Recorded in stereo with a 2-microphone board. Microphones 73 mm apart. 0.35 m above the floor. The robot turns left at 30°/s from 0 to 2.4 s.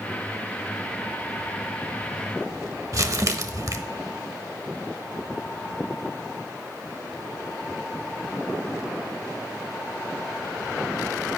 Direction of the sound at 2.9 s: 50° right (ahead or behind).